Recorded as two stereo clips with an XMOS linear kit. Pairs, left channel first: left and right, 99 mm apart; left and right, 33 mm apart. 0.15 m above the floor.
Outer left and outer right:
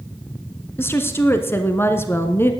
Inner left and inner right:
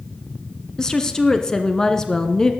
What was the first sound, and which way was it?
A woman speaking, 20° left (ahead or behind).